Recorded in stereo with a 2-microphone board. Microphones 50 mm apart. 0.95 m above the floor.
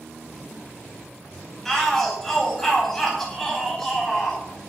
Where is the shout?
5° left (ahead or behind), 5.5 m.